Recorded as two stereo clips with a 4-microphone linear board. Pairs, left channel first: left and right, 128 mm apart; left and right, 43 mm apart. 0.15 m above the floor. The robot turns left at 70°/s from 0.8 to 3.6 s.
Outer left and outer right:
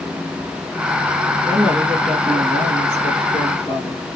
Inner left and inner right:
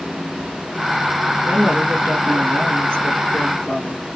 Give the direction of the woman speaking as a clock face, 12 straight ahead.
5 o'clock.